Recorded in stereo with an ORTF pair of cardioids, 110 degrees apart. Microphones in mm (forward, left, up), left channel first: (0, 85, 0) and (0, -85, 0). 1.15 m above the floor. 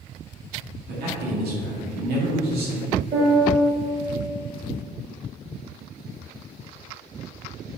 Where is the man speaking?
70° right, 2 m.